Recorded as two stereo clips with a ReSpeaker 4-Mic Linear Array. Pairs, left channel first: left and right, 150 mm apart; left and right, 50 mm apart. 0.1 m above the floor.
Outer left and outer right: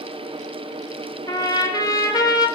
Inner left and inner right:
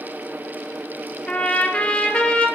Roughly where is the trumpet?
Left.